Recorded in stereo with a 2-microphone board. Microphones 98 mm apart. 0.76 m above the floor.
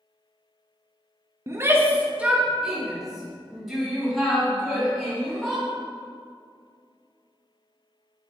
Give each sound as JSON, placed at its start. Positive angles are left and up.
{"t": 1.5, "sound": "a shout", "side_deg": -30, "distance_m": 0.5}